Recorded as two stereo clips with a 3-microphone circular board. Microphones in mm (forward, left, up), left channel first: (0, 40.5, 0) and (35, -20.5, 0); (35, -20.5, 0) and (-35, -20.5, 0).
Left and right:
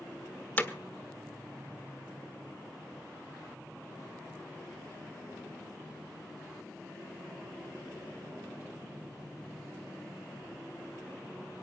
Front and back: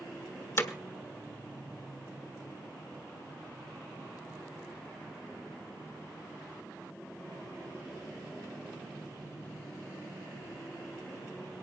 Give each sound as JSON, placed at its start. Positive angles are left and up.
{"t": 0.6, "sound": "hammering", "azimuth_deg": 55, "distance_m": 1.2}